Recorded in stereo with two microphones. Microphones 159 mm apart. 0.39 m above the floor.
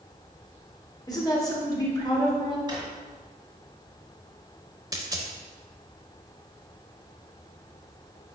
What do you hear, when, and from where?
1.1 s a woman speaking: 25° left (ahead or behind), 0.9 m
2.7 s a drawer: 30° right (ahead or behind), 1.3 m
4.9 s a dropped coin: 25° right (ahead or behind), 0.6 m